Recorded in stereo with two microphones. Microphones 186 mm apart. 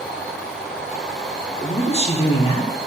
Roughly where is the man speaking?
Left.